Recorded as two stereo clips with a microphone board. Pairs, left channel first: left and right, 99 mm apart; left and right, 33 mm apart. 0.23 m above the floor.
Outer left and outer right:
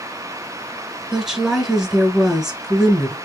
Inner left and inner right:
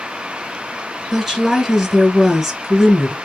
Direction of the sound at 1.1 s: 5° right (ahead or behind).